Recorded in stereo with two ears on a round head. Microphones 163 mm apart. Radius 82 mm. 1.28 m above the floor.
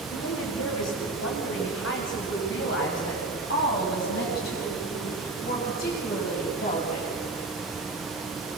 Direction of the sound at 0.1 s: 75° left (ahead or behind).